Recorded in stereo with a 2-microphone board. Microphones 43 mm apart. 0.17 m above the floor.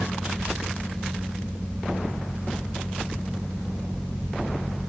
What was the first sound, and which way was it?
Only background noise.